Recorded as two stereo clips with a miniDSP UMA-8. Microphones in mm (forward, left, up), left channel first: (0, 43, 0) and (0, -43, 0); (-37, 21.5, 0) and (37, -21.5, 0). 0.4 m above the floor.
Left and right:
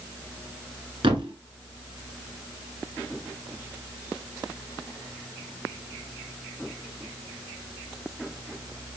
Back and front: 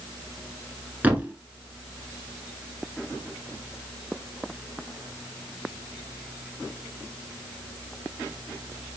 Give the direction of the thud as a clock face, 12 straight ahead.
3 o'clock.